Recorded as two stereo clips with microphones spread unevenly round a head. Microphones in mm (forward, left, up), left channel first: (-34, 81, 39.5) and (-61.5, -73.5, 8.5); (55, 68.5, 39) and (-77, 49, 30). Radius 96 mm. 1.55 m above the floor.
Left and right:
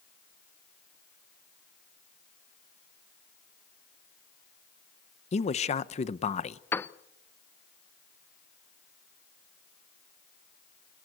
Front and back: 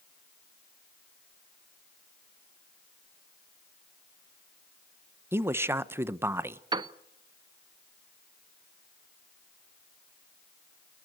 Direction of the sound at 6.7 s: 140° left.